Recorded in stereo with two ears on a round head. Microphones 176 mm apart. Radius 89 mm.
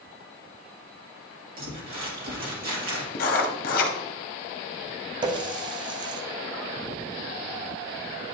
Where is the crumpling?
45° right (ahead or behind), 2 m.